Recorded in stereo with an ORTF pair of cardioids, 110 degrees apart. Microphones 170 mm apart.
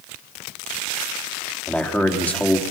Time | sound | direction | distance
1.7 | a man speaking | 10° left | 3.5 m